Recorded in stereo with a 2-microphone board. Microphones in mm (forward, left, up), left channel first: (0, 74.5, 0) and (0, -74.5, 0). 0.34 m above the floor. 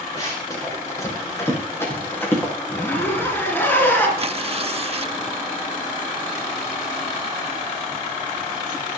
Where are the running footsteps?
25° left (ahead or behind), 7.5 m; by 2.5 s 15° left (ahead or behind), 7.5 m.